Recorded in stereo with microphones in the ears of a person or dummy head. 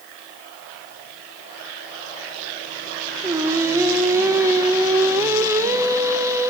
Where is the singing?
15° right (ahead or behind), 0.8 m.